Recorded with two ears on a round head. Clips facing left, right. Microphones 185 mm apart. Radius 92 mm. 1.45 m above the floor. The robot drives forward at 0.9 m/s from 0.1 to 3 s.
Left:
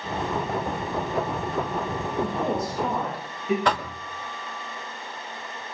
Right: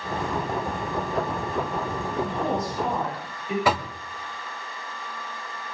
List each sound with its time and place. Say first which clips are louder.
2.2 s a woman speaking: left 1 dB; 90° left, 7.5 m; by 3.5 s 85° left, 7.5 m
3.6 s knocking: right 1 dB; 5° right (ahead or behind), 1.2 m